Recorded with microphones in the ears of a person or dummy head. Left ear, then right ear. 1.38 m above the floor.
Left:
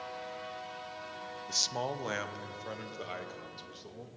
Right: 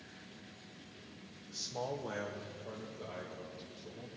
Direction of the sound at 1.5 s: 60° left (ahead or behind).